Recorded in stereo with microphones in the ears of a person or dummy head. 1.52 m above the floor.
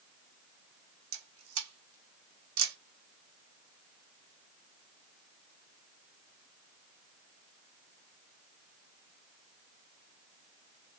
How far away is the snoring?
No snoring in this recording.